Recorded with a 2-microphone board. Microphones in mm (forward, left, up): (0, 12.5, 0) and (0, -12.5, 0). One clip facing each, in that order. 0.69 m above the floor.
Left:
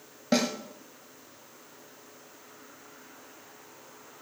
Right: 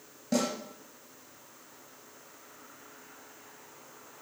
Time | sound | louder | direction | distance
0.3 | a snare drum | left 3 dB | 55° left (ahead or behind) | 2.5 m